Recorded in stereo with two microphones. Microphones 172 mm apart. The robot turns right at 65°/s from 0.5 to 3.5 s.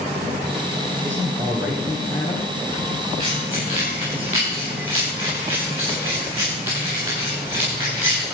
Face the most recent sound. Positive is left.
turn(degrees=-15)  # may be behind; listen again after turning